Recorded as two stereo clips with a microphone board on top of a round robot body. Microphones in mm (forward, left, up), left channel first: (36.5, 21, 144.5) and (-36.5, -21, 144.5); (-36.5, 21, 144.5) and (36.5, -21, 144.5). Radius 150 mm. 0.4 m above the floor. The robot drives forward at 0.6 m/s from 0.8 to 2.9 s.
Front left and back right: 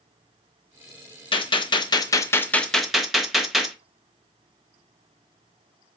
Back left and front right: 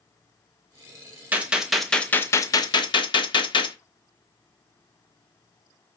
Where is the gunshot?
45° left, 0.8 m; by 3.8 s 120° left, 0.7 m.